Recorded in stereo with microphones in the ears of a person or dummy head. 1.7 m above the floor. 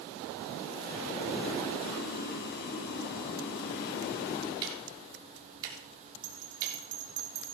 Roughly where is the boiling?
Left.